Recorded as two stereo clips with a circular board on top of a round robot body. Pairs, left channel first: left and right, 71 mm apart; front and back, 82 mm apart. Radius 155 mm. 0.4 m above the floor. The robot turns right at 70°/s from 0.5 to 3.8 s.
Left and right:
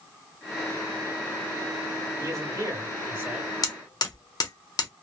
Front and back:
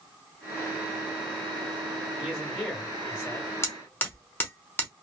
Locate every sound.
2.2 s a man speaking: 105° right, 2 m; by 3.5 s 10° right, 2 m
3.6 s hammering: 55° left, 1.3 m; by 4.9 s 65° left, 1.3 m